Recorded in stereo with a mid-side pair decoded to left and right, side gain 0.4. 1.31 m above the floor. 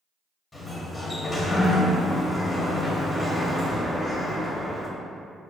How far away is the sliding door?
About 0.9 m.